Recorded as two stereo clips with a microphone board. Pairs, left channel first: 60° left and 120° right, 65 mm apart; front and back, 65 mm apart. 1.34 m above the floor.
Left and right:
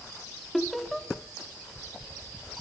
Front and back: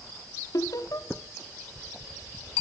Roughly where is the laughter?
Ahead right.